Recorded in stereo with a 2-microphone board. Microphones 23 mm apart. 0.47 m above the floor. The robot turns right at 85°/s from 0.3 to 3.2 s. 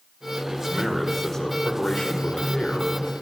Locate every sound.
0.5 s a man speaking: 35° right, 1.8 m; by 3.0 s 175° left, 1.8 m